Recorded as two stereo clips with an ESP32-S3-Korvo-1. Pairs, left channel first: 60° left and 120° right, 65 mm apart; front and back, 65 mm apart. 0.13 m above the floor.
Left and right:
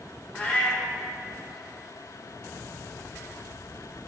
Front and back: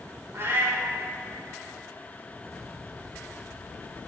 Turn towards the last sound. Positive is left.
turn(degrees=130)